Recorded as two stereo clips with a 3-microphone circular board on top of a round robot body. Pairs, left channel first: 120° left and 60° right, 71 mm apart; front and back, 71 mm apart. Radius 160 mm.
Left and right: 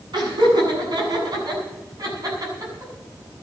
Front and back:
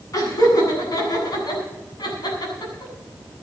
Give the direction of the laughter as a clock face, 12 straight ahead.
1 o'clock.